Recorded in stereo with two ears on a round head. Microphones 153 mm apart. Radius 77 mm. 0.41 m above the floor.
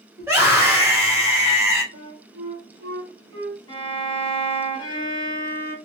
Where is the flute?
85° right, 1.2 m.